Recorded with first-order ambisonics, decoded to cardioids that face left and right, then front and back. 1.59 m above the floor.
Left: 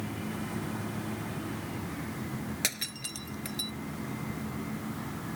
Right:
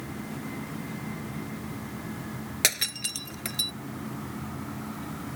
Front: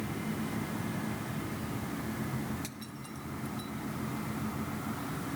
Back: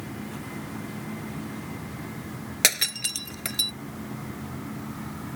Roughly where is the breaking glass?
Behind.